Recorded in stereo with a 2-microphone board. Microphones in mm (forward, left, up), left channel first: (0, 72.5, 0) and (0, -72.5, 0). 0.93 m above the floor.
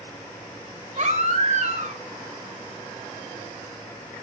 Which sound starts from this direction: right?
A baby crying, at 1.0 s.